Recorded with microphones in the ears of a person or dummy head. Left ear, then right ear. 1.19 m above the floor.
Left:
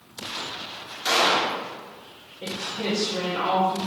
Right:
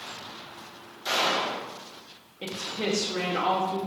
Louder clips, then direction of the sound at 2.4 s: Left 1 dB; 55° right (ahead or behind).